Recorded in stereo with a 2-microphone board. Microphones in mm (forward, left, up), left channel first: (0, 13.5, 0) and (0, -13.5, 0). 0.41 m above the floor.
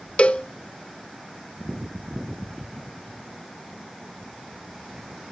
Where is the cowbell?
45° left (ahead or behind), 0.5 m.